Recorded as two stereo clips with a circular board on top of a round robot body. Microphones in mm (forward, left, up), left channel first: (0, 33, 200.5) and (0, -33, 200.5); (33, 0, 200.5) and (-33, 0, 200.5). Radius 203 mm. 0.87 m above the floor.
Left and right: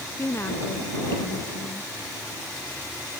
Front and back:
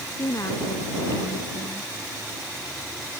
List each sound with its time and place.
0.2 s a woman speaking: 35° left